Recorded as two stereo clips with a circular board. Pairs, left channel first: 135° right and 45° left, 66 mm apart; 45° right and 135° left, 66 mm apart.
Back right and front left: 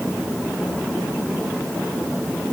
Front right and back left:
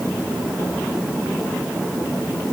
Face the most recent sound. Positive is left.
No sound to turn to.